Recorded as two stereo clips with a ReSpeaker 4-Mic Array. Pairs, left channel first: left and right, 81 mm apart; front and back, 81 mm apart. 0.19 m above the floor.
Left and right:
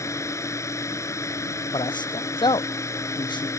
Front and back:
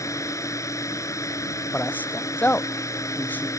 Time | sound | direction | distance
0.0 | a drone | 45° left | ?
1.7 | a man speaking | 70° left | ?